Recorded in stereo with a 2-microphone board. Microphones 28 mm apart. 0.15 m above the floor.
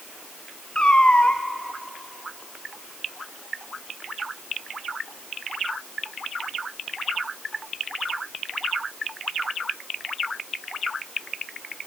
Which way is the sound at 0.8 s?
30° left (ahead or behind).